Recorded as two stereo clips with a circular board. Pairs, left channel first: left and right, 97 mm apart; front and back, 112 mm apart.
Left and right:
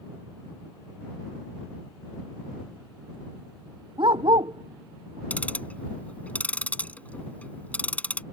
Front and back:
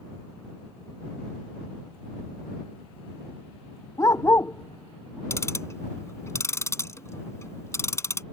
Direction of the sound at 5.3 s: 30° left.